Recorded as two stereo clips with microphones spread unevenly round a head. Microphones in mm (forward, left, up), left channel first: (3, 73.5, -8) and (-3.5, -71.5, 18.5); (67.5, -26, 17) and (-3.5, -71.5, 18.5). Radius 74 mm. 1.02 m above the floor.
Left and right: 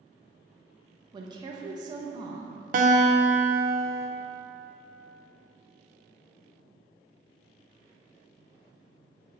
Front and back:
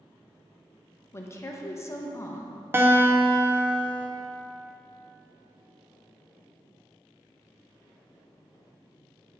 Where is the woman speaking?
25° right, 0.6 m.